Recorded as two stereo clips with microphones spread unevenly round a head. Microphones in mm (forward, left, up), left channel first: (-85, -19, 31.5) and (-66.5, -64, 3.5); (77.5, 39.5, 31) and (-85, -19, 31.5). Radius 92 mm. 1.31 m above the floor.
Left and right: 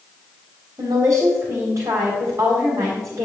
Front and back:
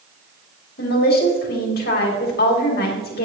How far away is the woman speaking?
About 3 m.